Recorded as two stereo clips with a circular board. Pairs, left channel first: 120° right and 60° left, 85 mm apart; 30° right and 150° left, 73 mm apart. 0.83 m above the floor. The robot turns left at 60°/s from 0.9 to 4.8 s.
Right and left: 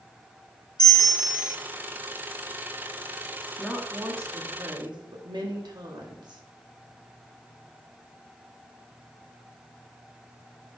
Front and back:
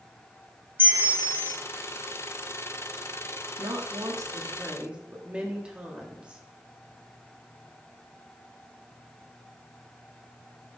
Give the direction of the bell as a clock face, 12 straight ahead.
5 o'clock.